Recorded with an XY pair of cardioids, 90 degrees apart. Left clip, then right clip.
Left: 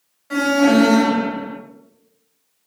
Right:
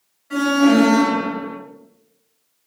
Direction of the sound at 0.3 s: 55° left.